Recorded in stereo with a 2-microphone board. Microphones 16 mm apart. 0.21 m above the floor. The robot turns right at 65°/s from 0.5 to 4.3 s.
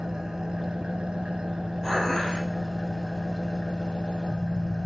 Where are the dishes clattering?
15° left, 3 m; by 2.5 s 60° left, 3 m.